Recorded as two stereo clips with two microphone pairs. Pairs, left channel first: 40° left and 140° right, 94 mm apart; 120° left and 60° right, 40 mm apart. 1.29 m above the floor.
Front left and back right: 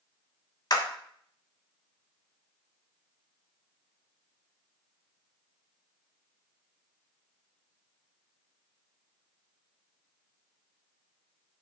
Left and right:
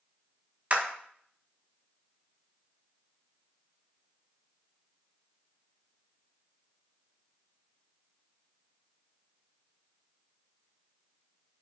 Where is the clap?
5° right, 1.3 m.